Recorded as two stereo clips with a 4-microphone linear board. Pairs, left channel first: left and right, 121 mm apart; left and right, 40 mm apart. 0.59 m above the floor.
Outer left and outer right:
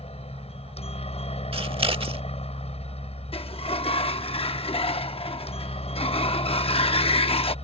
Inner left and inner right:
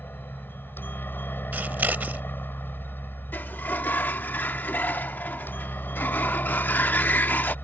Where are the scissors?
50° right (ahead or behind).